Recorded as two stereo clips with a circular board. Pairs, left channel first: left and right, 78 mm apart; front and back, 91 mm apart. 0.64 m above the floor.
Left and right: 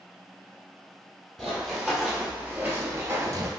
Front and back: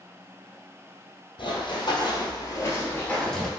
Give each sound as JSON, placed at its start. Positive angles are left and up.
{"t": 1.4, "sound": "running footsteps", "azimuth_deg": 0, "distance_m": 1.2}